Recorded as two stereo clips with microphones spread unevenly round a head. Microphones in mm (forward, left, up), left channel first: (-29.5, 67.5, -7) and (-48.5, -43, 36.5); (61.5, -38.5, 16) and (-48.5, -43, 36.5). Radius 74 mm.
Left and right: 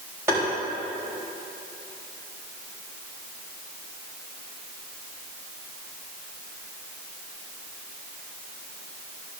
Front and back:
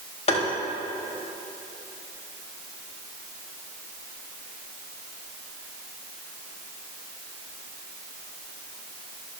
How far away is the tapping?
About 4 m.